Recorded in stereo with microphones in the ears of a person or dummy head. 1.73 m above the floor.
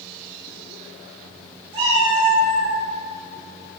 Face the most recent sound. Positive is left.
turn(degrees=-25)  # may be behind; listen again after turning